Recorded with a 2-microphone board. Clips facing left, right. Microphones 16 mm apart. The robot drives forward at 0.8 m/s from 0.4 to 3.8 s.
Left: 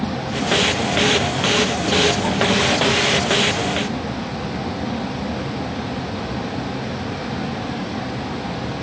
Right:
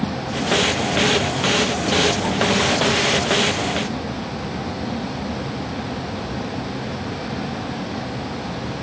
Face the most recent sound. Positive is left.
turn(degrees=10)  # may be behind; listen again after turning